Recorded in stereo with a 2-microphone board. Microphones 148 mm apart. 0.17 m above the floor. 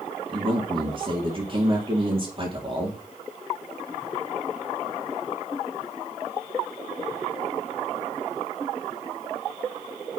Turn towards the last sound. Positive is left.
turn(degrees=-40)  # may be behind; listen again after turning